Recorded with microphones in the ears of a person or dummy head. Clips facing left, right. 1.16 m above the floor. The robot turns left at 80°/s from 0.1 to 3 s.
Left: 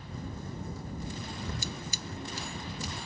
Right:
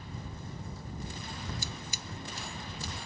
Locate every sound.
1.6 s scissors: 55° left (ahead or behind); by 2.9 s 40° right (ahead or behind)